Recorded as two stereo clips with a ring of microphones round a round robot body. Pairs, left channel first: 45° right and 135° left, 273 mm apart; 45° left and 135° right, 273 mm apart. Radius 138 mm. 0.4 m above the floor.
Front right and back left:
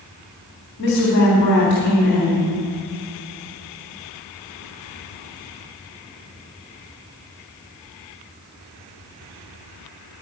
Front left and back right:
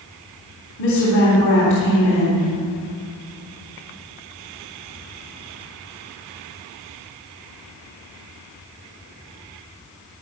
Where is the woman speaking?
5° left, 3.5 m.